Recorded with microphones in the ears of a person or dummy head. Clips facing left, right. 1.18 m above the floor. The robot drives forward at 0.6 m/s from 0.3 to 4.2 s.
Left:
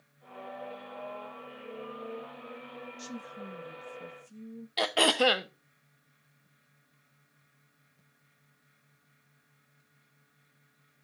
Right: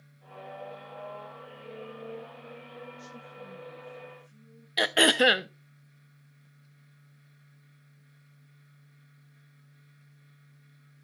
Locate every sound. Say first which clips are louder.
3.0 s a woman speaking: left 4 dB; 80° left, 1.7 m; by 4.7 s 65° left (ahead or behind), 1.9 m
4.8 s throat clearing: right 2 dB; 15° right (ahead or behind), 0.6 m